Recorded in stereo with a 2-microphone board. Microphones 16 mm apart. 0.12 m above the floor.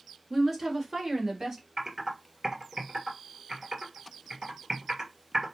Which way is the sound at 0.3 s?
20° right (ahead or behind).